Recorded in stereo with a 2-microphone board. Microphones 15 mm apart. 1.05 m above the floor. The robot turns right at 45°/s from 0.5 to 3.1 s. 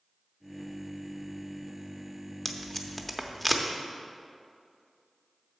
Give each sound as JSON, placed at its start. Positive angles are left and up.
{"t": 2.5, "sound": "tape being pulled", "side_deg": 25, "distance_m": 0.6}